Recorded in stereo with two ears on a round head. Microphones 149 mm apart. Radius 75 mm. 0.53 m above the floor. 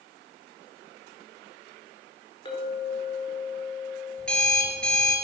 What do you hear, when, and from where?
2.5 s a clink: 30° left (ahead or behind), 4.5 m
4.2 s an alarm clock: 5° left (ahead or behind), 3.5 m